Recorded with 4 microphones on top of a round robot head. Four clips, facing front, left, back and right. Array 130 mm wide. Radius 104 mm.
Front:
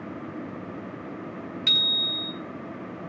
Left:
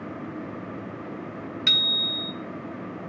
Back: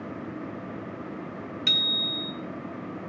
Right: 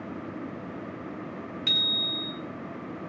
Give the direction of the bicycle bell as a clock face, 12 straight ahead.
9 o'clock.